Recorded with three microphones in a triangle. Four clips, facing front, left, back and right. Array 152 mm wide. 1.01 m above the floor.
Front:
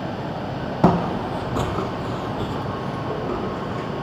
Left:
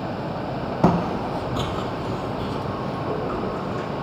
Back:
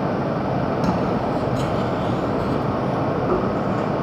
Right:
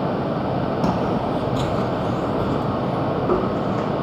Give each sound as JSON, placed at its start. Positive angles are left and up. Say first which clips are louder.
{"t": 0.8, "sound": "footsteps", "louder": "left 4 dB, front 1 dB", "azimuth_deg": 30, "distance_m": 2.0}